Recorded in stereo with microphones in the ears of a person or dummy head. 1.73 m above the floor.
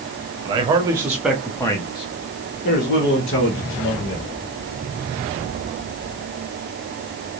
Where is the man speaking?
30° right (ahead or behind), 1.1 m; by 4.3 s 70° left (ahead or behind), 1.7 m.